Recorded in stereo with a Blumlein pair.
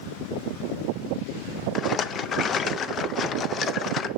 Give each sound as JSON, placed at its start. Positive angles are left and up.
{"t": 1.8, "sound": "a rattle", "azimuth_deg": 25, "distance_m": 0.5}